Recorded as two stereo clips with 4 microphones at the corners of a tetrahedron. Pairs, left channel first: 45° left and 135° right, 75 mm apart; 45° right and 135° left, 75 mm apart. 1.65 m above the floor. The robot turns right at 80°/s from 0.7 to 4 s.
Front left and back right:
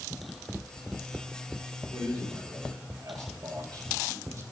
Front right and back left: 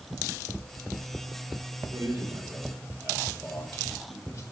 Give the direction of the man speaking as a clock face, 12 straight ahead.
9 o'clock.